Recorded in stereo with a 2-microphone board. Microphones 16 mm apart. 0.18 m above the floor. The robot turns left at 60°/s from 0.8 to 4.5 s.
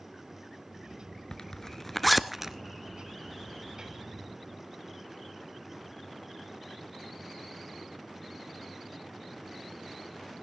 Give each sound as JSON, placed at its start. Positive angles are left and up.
{"t": 1.3, "sound": "a zipper", "side_deg": 45, "distance_m": 0.7}